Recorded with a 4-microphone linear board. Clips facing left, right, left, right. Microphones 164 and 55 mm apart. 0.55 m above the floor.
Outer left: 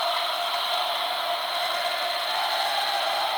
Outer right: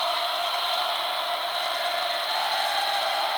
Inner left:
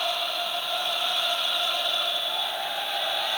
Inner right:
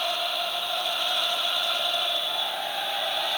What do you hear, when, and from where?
Only background noise.